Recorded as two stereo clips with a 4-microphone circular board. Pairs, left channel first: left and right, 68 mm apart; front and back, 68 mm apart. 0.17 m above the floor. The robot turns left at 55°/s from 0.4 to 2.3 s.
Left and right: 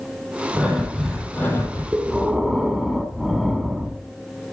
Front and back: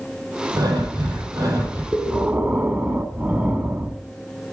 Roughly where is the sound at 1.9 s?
Behind right.